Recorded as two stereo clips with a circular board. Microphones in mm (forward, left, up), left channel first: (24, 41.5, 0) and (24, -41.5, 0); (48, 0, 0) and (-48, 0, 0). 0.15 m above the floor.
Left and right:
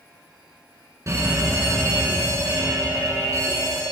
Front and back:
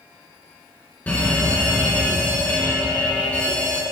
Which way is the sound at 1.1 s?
65° right.